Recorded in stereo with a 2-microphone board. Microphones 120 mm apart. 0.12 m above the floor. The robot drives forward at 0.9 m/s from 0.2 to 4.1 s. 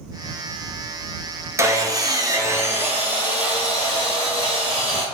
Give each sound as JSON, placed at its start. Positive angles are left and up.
{"t": 1.6, "sound": "sawing", "side_deg": -25, "distance_m": 0.6}